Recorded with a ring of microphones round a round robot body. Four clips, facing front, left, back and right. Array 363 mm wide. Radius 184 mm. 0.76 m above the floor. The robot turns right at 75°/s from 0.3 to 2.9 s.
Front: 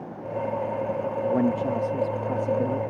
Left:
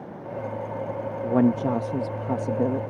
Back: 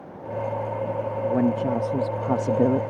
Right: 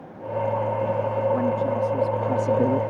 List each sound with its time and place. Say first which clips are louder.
1.2 s a woman speaking: left 4 dB, back 1 dB; 85° left; by 2.8 s 155° right